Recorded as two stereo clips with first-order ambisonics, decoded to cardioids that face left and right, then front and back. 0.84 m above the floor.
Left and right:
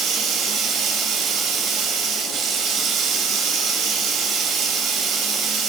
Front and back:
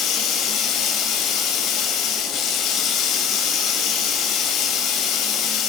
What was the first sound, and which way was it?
Running water, 40° right.